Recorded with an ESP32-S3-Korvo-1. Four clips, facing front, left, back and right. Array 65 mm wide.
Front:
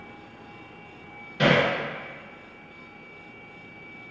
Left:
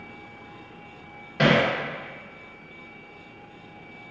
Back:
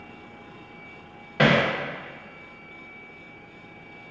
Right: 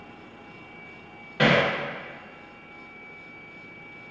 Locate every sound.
1.4 s hammering: 170° left, 0.7 m